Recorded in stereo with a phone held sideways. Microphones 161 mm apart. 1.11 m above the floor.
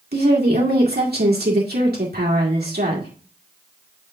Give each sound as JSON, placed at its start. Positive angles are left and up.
{"t": 0.1, "sound": "a woman speaking", "side_deg": -80, "distance_m": 2.5}